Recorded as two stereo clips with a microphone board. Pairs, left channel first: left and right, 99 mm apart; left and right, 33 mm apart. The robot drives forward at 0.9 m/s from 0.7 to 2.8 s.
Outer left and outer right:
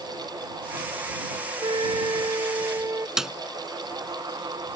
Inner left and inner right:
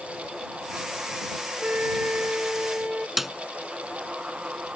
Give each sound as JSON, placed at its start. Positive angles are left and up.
{"t": 1.6, "sound": "a flute", "side_deg": -60}
{"t": 3.2, "sound": "a snare drum", "side_deg": -5}